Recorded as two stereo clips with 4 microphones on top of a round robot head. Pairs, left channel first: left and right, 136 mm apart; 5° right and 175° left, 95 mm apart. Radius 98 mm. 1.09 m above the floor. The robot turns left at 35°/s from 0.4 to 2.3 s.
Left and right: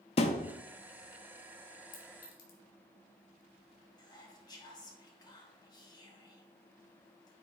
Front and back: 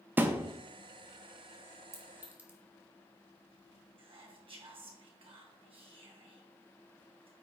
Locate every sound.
0.2 s a thud: 110° left, 0.5 m; by 0.5 s 105° left, 0.5 m
1.9 s a clink: 115° left, 1.7 m; by 2.6 s 105° left, 1.7 m
4.0 s whispering: 150° left, 2.5 m